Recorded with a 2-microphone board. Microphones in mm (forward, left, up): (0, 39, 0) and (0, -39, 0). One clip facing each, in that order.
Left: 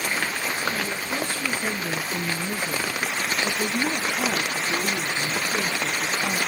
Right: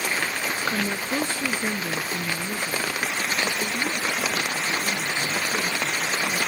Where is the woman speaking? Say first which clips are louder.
Right 2 dB; 35° right (ahead or behind), 1.3 m; by 6.4 s 50° left (ahead or behind), 3 m.